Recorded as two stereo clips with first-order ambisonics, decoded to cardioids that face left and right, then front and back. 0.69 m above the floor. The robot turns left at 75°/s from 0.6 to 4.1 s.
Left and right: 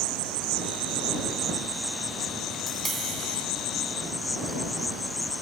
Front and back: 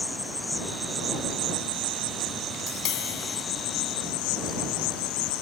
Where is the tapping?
10° left; by 3.5 s 55° right.